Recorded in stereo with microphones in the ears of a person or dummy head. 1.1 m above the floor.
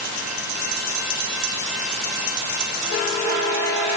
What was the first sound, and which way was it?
Only background noise.